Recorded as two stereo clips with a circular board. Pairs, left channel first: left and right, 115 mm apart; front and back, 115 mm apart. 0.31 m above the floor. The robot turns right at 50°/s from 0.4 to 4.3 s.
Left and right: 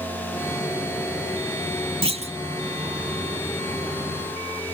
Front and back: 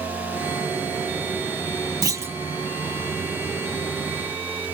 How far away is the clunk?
About 0.9 m.